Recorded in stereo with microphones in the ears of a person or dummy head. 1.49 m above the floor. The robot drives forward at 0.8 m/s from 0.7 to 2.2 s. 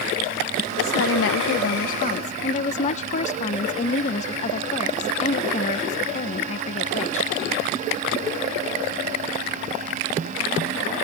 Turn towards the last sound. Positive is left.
turn(degrees=40)  # may be behind; listen again after turning